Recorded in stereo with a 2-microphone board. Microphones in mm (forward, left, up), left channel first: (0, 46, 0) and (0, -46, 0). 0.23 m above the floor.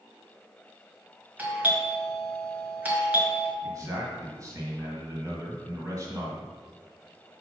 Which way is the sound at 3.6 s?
35° right (ahead or behind).